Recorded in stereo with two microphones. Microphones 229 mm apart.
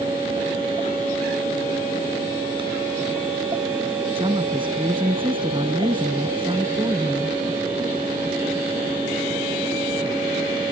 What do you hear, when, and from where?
4.2 s a woman speaking: 20° right (ahead or behind)